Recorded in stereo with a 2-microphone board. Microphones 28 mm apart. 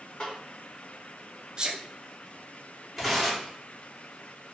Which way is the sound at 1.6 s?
30° right (ahead or behind).